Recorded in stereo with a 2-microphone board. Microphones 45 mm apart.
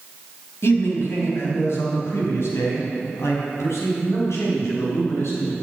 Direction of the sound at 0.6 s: 65° left (ahead or behind).